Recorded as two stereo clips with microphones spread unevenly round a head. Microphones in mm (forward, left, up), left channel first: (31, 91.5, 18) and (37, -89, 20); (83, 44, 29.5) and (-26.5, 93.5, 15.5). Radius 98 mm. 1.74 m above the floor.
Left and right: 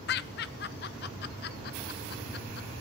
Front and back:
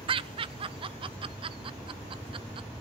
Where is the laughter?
115° left, 0.6 m.